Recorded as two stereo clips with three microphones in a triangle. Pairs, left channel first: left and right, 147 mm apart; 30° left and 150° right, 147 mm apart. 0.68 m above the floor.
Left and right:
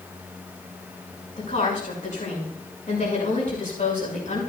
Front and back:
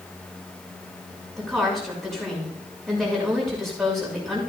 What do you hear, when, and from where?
1.4 s a woman speaking: 120° left, 6 m